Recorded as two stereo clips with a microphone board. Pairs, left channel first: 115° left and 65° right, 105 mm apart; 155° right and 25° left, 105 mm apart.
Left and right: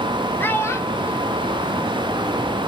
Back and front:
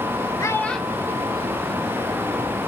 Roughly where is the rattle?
I don't hear a rattle.